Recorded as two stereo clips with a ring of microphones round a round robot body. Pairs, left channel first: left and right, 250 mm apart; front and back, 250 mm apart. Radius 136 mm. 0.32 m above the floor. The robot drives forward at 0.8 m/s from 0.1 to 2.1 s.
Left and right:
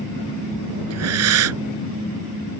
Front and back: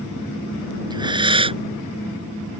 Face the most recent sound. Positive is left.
turn(degrees=-115)